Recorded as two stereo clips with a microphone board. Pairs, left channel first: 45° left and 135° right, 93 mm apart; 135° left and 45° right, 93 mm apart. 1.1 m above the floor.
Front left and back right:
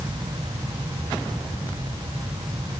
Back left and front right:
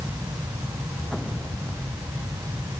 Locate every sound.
Only background noise.